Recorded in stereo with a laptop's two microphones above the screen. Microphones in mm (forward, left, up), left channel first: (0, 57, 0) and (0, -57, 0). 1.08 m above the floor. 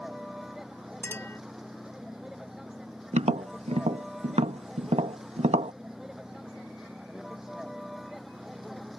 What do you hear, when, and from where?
0.0 s a vehicle: 5° right (ahead or behind)
1.0 s a clink: 20° left (ahead or behind)
3.1 s tapping: 75° right (ahead or behind)